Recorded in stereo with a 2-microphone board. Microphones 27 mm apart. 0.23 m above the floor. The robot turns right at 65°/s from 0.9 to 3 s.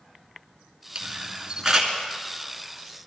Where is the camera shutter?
50° right (ahead or behind), 2.5 m; by 1.9 s 5° left (ahead or behind), 2.5 m.